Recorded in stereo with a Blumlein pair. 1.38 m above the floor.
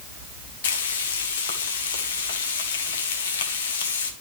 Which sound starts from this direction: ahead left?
Frying, at 0.6 s.